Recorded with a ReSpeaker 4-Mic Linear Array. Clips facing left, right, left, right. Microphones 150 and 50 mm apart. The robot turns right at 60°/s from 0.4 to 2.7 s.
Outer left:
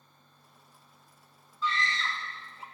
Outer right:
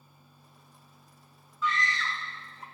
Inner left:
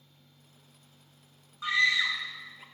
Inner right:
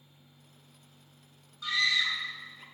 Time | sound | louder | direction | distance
1.6 | a scream | outer right 1 dB, inner left 3 dB | 30° left (ahead or behind) | 0.8 m